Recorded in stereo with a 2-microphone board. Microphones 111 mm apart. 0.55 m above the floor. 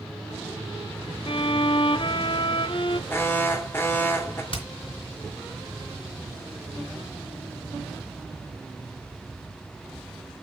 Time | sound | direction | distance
1.3 | a violin | 50° left (ahead or behind) | 0.6 m
3.1 | an alarm | 20° left (ahead or behind) | 2.5 m
4.5 | hammering | 50° left (ahead or behind) | 3.5 m